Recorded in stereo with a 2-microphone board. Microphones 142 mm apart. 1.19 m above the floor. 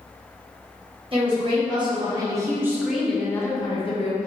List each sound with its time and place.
1.1 s a woman speaking: 40° right (ahead or behind), 1.4 m; by 4.3 s 55° left (ahead or behind), 0.7 m